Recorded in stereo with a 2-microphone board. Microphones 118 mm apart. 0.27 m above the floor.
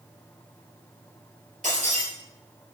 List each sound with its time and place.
1.6 s breaking glass: 80° right, 4 m